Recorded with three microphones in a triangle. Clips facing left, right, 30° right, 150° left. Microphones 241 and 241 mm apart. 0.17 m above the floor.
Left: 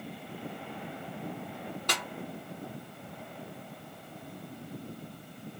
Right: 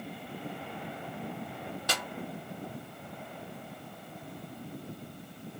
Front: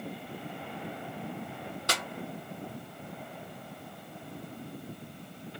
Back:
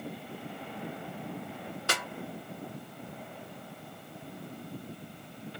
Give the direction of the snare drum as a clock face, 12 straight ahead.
12 o'clock.